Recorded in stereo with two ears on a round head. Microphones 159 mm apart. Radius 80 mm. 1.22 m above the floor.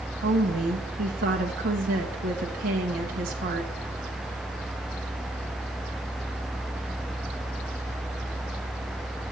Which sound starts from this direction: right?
A woman speaking, at 0.2 s.